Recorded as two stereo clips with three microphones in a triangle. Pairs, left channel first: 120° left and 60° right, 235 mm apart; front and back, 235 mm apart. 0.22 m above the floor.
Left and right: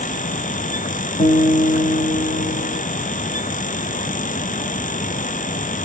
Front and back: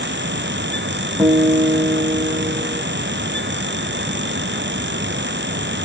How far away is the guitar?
About 0.8 m.